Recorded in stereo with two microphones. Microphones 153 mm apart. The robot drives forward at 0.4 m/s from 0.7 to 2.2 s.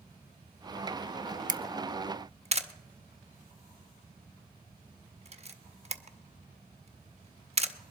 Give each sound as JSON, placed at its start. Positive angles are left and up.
{"t": 1.5, "sound": "a camera shutter", "side_deg": -55, "distance_m": 0.6}